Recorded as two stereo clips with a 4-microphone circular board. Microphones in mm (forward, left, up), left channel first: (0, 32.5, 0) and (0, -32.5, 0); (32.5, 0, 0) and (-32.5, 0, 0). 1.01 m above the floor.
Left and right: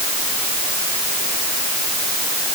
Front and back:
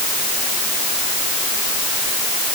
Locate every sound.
Only background noise.